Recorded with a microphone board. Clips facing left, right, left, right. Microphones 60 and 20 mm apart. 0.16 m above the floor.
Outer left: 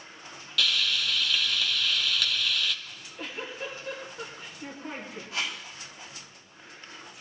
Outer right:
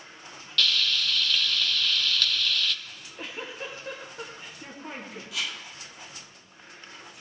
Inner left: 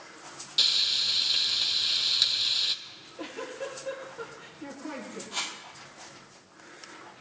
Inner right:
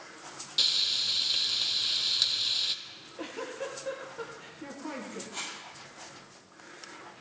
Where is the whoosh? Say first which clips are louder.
Outer left 1 dB, inner left 7 dB; 35° left (ahead or behind), 2 m.